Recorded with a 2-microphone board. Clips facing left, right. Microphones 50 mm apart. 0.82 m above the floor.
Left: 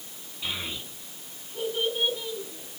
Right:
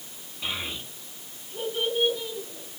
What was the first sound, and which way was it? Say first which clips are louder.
A child speaking: right 1 dB; 10° right (ahead or behind).